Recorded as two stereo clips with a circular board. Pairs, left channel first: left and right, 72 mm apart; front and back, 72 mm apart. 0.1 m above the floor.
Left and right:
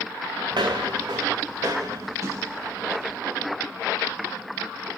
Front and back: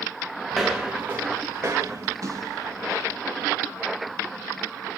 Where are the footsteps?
90° right, 0.6 m; by 3.2 s 145° right, 1.7 m.